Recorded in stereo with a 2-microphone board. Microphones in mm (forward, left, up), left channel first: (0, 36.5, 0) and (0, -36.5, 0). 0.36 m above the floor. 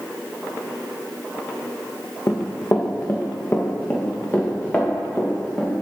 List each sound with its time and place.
2.3 s running footsteps: 35° left (ahead or behind), 1.2 m; by 5.8 s 20° left (ahead or behind), 3 m